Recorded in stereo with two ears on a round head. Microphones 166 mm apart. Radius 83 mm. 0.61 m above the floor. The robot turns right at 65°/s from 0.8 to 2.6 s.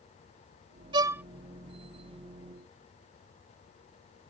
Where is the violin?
25° right (ahead or behind); by 1.2 s 10° right (ahead or behind).